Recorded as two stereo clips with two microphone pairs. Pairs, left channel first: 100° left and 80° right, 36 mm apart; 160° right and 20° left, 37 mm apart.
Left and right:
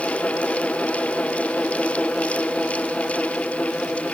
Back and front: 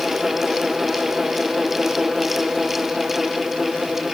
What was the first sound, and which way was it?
Only background noise.